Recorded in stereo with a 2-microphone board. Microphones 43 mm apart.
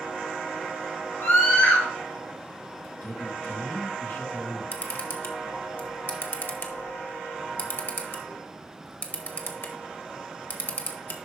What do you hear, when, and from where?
1.2 s a scream: 55° left (ahead or behind), 1.1 m
3.0 s a man speaking: 50° left (ahead or behind), 1.4 m
4.7 s a camera shutter: 55° left (ahead or behind), 1.4 m